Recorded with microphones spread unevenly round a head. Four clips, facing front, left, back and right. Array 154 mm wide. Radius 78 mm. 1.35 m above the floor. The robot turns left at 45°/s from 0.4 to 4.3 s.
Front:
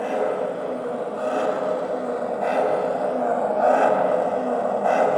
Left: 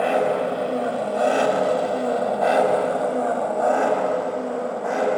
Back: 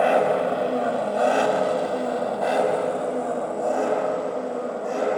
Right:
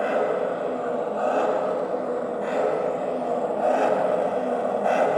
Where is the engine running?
165° left, 4.5 m; by 5.2 s 10° right, 4.5 m.